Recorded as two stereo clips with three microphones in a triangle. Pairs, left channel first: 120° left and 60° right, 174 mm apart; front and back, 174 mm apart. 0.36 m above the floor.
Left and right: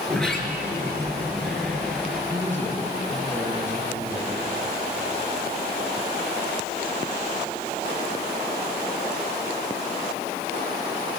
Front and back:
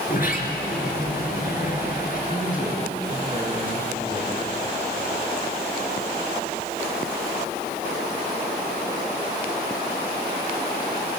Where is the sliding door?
35° left, 4 m.